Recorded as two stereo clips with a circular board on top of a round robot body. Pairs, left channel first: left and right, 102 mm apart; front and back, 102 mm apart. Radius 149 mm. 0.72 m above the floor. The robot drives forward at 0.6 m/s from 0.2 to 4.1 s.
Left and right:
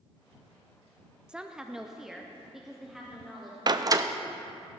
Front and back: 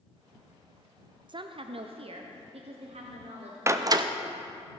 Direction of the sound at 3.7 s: 120° right.